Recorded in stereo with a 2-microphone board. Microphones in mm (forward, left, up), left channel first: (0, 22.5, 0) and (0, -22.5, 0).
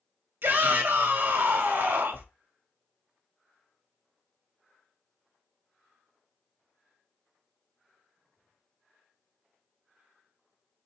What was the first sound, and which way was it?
A shout, 55° right (ahead or behind).